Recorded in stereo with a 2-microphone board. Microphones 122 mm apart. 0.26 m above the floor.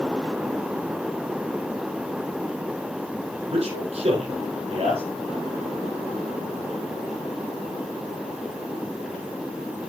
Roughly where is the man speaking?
Right.